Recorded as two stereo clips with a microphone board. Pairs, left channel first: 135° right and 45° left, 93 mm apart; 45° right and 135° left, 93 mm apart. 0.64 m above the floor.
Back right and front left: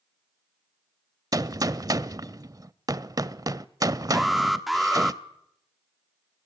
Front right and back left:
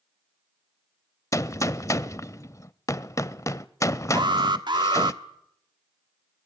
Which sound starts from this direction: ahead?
A gunshot, at 1.3 s.